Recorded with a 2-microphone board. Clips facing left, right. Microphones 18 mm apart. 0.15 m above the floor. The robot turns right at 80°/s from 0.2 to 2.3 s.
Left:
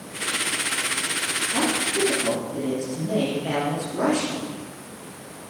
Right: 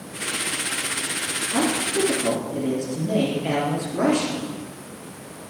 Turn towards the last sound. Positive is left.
turn(degrees=-20)